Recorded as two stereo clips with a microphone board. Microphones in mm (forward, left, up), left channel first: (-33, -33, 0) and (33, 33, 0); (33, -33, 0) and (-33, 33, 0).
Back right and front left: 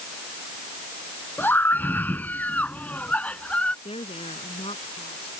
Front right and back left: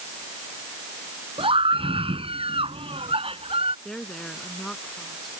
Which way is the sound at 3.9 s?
130° right.